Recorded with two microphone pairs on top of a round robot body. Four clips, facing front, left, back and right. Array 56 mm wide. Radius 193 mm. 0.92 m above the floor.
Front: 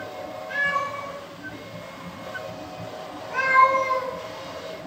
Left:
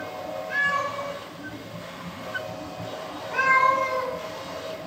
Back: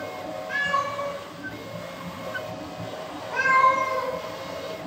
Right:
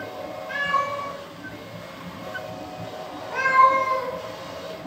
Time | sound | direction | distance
0.5 | a cat meowing | 85° right | 1.3 m